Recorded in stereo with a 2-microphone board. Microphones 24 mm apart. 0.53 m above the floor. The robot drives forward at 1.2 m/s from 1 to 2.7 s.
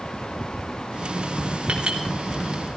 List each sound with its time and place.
1.7 s a clink: 75° right (ahead or behind), 2.5 m; by 2.0 s 70° right (ahead or behind), 2.5 m